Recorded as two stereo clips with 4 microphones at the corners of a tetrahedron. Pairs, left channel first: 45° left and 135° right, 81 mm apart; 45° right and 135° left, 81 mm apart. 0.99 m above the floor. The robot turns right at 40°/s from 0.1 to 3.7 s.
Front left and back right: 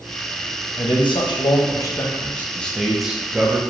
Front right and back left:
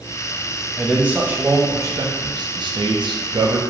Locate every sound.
0.8 s a man speaking: 50° left, 0.6 m; by 3.6 s 160° left, 0.6 m